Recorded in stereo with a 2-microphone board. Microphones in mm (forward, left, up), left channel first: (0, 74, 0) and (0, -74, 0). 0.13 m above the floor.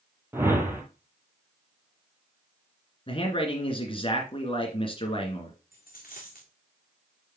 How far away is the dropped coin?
About 3.5 m.